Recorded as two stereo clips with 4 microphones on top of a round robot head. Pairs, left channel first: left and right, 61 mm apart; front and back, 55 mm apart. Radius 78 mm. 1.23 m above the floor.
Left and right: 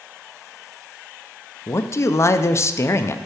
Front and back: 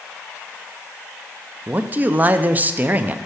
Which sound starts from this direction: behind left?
A man speaking, at 1.7 s.